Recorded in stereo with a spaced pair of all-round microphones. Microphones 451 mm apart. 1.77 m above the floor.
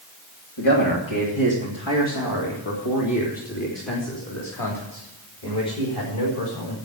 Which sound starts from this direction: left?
A man speaking, at 0.6 s.